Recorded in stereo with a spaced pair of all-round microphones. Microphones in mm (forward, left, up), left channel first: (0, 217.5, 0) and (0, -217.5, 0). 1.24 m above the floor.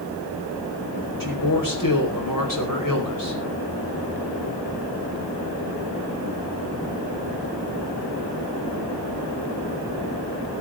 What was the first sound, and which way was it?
A man speaking, 50° left (ahead or behind).